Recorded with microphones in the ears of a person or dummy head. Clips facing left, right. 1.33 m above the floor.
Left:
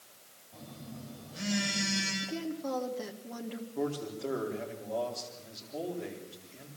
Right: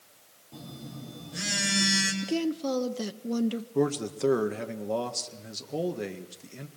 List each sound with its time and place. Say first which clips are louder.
0.5 s a phone buzzing: right 4 dB; 80° right, 4.5 m
2.2 s a woman speaking: right 10 dB; 50° right (ahead or behind), 0.8 m
3.8 s a man speaking: right 6 dB; 75° right (ahead or behind), 1.6 m